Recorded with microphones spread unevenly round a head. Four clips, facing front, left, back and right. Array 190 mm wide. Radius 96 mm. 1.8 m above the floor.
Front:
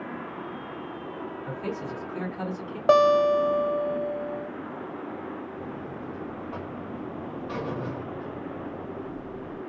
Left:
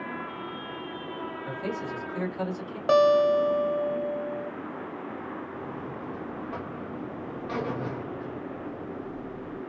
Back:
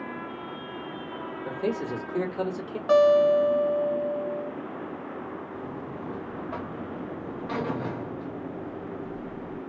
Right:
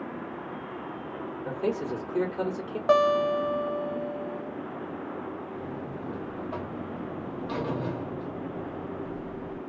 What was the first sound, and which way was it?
A man speaking, 155° right.